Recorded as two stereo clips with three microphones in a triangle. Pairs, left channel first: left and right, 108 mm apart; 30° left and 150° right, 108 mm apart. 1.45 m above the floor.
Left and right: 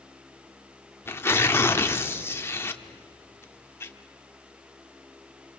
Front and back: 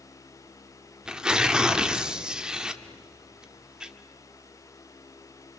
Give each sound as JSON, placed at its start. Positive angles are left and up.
{"t": 1.1, "sound": "tearing paper", "azimuth_deg": 135, "distance_m": 1.1}